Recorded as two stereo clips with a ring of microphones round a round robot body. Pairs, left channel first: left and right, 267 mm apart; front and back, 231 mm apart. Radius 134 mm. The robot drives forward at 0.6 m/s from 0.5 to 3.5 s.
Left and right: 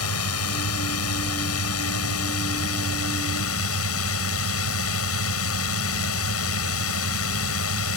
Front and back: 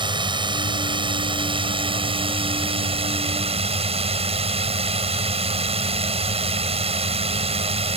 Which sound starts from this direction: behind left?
A drone, at 0.0 s.